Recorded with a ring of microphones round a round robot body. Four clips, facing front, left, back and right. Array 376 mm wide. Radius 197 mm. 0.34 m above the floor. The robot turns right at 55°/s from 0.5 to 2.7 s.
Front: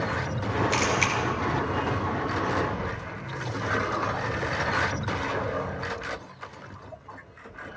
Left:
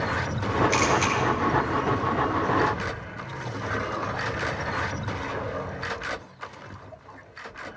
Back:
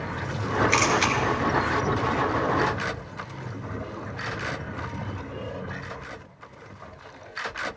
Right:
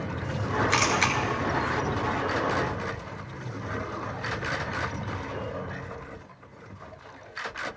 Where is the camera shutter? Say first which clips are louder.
Left 2 dB, back 3 dB; 120° right, 1.9 m; by 1.1 s 100° right, 1.9 m.